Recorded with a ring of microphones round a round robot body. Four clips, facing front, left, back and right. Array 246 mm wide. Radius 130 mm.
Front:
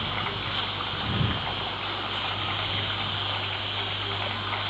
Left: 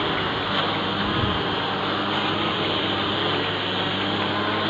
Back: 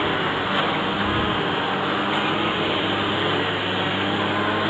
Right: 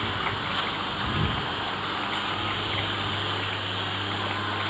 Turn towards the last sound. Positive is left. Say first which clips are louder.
# left 5 dB, back 10 dB
turn(degrees=155)